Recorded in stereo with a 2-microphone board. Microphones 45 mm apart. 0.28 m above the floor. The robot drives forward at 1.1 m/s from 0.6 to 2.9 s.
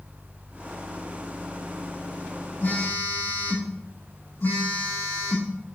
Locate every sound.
2.6 s a phone buzzing: 80° left, 5 m; by 5.5 s 75° left (ahead or behind), 5.5 m